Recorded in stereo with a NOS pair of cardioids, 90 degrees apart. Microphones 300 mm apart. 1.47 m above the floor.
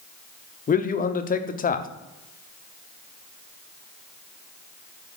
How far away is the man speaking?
About 0.6 m.